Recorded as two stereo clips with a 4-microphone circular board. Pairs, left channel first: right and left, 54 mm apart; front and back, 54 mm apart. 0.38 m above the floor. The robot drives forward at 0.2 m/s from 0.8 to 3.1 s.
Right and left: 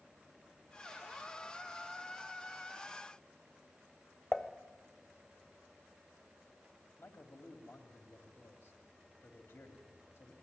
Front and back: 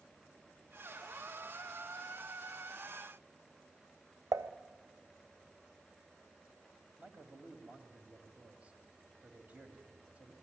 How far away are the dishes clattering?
About 1.1 m.